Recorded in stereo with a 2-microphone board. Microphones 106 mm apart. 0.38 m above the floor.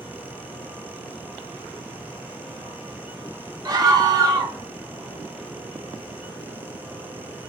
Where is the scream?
40° right (ahead or behind), 1.1 m.